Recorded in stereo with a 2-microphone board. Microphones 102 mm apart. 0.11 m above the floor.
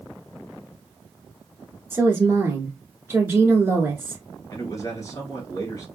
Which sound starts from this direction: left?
A man speaking, at 4.5 s.